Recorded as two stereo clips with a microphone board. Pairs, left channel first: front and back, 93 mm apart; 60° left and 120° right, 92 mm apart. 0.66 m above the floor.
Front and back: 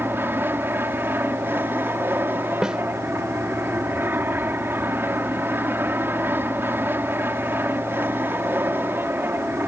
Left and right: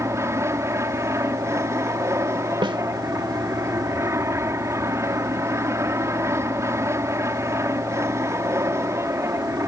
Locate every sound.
0.0 s an aircraft: 135° right
2.6 s a snare drum: 100° right